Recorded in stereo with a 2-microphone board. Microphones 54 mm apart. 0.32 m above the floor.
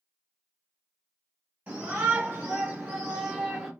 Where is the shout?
20° right (ahead or behind), 1.2 m; by 3.7 s 10° right (ahead or behind), 0.9 m.